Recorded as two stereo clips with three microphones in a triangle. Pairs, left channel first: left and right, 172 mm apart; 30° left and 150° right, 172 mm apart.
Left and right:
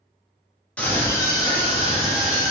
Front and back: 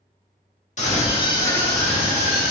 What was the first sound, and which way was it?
A scream, 10° left.